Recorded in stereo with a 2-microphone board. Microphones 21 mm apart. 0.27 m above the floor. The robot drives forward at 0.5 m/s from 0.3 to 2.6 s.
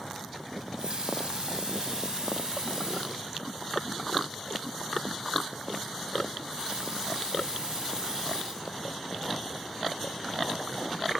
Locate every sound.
0.6 s a running tap: 45° right (ahead or behind), 1.2 m; by 9.5 s 35° right (ahead or behind), 1.5 m